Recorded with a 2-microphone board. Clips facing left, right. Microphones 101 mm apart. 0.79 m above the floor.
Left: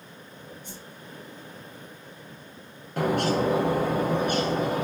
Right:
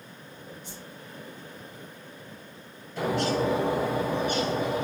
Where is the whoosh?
50° left (ahead or behind), 1.7 m.